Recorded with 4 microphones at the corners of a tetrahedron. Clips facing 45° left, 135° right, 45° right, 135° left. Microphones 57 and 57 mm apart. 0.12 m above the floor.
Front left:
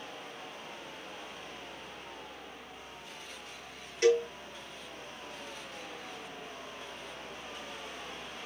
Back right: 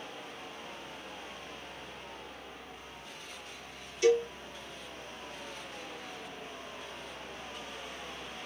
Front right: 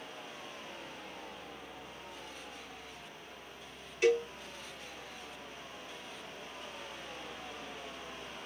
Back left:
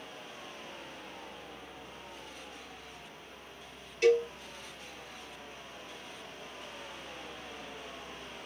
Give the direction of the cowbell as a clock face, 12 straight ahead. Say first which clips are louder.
Even, back left 3 dB; 11 o'clock.